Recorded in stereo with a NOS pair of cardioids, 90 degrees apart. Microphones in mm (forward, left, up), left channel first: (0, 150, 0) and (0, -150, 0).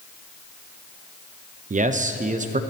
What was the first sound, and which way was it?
A man speaking, 25° right.